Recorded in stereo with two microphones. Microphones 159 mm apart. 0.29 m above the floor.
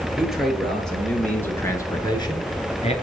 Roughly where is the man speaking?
Centre.